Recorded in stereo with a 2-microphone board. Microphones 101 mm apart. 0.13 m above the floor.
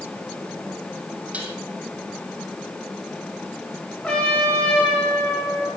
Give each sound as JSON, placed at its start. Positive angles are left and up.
{"t": 1.3, "sound": "dishes clattering", "side_deg": -15, "distance_m": 3.5}
{"t": 4.0, "sound": "a trumpet", "side_deg": 5, "distance_m": 8.0}